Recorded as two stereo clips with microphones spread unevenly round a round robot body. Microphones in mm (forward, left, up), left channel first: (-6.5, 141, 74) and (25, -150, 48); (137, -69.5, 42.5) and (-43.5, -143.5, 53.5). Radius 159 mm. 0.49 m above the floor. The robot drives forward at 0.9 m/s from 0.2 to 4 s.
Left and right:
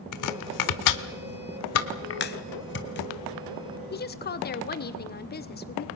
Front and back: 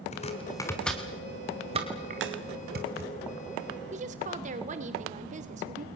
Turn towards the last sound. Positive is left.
turn(degrees=150)